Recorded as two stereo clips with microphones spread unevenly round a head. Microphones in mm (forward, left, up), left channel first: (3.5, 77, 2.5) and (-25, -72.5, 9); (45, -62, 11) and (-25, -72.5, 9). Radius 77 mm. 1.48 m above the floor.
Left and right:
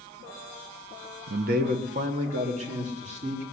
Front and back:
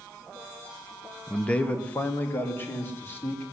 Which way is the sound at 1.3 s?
75° right.